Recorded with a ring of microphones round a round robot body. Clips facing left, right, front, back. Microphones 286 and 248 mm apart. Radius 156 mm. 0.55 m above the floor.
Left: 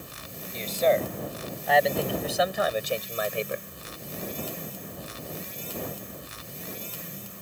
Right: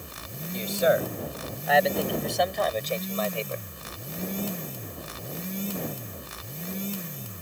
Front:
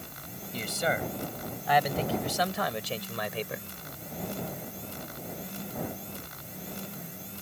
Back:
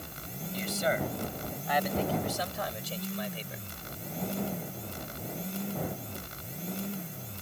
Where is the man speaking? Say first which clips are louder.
Even, even; 15° right; by 3.7 s 20° left.